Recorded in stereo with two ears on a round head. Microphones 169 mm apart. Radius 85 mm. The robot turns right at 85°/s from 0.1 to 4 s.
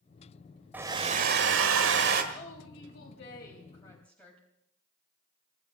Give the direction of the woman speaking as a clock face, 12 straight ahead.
11 o'clock.